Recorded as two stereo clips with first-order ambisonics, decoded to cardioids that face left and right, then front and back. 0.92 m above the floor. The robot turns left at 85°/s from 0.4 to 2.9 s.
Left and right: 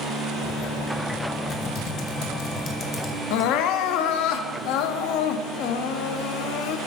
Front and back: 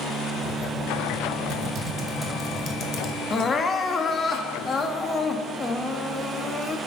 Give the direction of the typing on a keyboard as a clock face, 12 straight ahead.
7 o'clock.